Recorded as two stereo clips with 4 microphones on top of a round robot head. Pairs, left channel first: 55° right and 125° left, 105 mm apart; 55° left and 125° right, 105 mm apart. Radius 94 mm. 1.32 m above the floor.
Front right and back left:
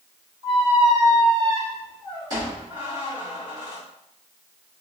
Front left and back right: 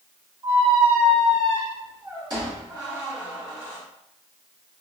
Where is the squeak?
Straight behind, 1.3 m.